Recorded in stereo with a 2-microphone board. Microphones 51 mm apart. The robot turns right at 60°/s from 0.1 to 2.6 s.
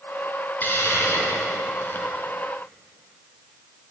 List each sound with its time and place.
0.6 s a hiss: 45° left, 2 m; by 2.1 s 135° left, 2 m